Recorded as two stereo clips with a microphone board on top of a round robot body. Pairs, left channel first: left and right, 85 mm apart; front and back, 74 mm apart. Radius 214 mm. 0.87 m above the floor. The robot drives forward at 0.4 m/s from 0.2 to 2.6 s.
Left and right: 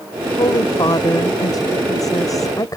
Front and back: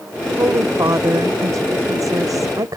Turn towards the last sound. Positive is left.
turn(degrees=140)